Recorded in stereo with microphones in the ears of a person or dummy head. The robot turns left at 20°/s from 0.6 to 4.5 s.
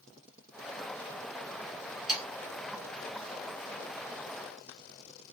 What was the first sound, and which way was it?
Sawing, centre (ahead or behind).